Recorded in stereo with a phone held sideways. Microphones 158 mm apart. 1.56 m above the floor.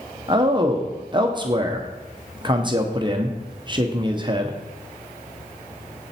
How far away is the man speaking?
About 0.9 m.